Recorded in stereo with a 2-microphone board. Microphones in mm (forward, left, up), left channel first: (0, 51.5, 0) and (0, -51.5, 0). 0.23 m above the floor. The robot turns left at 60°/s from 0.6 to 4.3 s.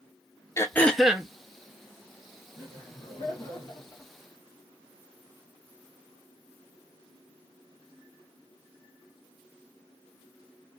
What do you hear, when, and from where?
0.6 s throat clearing: 25° left, 0.6 m; by 1.3 s 15° right, 0.6 m
2.5 s laughter: 130° left, 2.0 m; by 4.1 s 35° left, 2.0 m